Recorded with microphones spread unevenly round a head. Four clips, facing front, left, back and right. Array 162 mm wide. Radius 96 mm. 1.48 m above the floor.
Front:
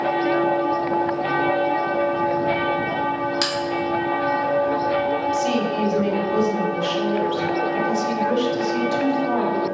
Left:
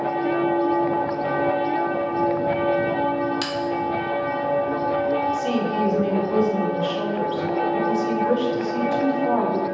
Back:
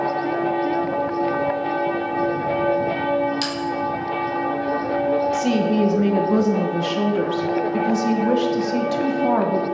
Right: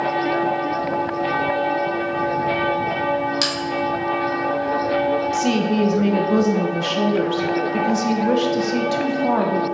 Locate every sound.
3.4 s a bell: 25° right, 3 m
5.3 s a woman speaking: 110° right, 1.4 m